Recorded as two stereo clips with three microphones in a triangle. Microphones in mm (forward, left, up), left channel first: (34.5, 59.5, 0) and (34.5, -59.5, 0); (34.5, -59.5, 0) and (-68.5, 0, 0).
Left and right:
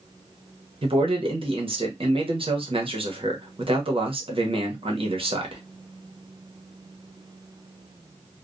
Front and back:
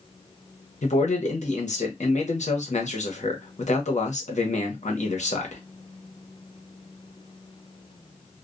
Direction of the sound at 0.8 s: 45° right.